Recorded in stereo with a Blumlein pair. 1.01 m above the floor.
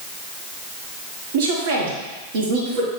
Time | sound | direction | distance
1.3 | a woman speaking | 50° right | 2 m